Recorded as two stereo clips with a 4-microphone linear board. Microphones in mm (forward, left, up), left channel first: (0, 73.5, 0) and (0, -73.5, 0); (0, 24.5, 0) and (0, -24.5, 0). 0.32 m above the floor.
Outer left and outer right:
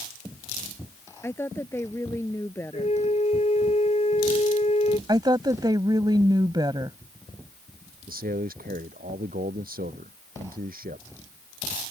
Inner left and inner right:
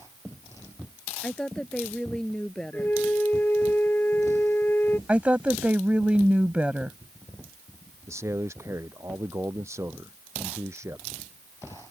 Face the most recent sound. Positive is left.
turn(degrees=-80)